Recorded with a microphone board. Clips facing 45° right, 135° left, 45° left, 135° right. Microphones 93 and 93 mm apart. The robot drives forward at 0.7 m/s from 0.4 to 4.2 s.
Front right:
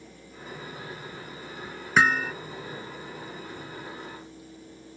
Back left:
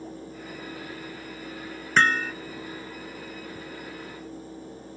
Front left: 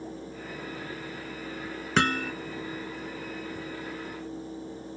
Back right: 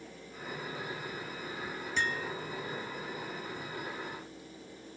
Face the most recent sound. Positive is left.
turn(degrees=65)